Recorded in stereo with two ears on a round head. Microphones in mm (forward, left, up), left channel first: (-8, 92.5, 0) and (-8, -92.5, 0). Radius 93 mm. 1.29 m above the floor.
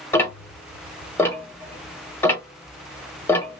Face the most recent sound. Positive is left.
turn(degrees=10)  # may be behind; listen again after turning